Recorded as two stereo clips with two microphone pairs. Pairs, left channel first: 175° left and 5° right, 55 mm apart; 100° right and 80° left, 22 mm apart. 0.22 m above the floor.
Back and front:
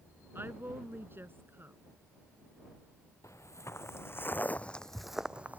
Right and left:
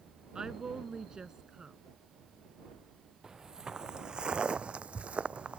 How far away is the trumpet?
No trumpet in this recording.